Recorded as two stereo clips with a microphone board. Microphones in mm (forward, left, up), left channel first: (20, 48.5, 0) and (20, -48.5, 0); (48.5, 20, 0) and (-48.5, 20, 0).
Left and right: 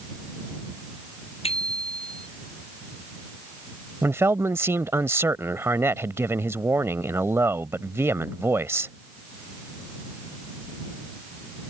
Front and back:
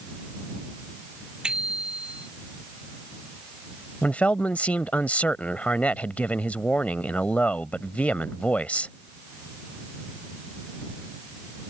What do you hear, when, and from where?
1.4 s a bicycle bell: 100° left
4.0 s a man speaking: 60° right